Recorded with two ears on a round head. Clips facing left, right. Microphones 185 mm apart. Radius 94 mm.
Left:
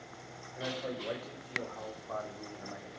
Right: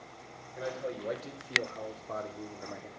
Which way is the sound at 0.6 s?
25° right (ahead or behind).